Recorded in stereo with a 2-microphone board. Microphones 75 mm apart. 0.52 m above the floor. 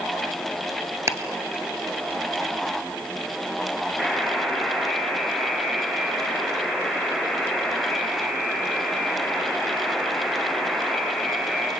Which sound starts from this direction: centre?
A buzzer, at 4.0 s.